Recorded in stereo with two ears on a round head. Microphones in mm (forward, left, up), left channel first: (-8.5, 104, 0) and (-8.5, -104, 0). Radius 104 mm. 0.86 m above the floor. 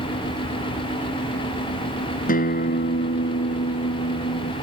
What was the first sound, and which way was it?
A guitar, 40° left (ahead or behind).